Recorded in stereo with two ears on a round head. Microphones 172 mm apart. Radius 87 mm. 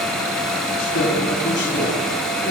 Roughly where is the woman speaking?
Left.